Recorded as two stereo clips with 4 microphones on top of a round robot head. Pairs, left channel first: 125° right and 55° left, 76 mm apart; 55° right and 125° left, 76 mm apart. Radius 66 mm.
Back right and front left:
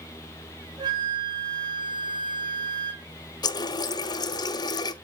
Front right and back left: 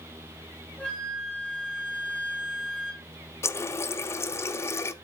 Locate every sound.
0.8 s a flute: 20° left, 3.5 m
3.4 s a running tap: 105° right, 0.8 m